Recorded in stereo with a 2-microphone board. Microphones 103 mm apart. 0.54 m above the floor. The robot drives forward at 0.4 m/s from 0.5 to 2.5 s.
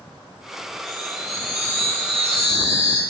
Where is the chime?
80° right, 4.5 m; by 3.0 s 75° right (ahead or behind), 5 m.